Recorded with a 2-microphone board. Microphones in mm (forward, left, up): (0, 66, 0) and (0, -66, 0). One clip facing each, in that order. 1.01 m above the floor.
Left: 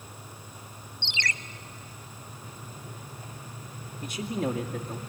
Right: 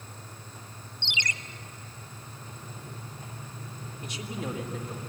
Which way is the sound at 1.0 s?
20° right (ahead or behind).